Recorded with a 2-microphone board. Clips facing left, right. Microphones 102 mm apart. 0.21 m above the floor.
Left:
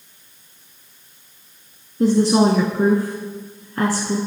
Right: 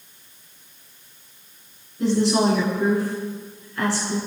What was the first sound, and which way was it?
A woman speaking, 45° left (ahead or behind).